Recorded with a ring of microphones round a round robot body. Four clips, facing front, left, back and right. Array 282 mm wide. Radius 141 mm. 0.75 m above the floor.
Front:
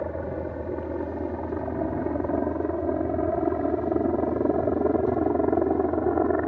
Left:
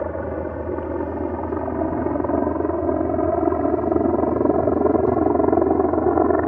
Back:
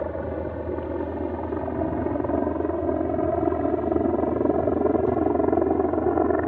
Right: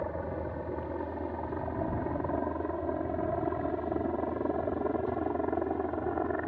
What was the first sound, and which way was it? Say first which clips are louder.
A helicopter: left 9 dB, back 2 dB; 100° left.